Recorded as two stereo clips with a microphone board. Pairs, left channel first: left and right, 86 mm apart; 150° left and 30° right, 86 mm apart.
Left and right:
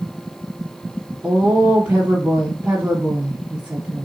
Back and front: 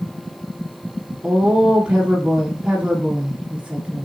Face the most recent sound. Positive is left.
turn(degrees=-65)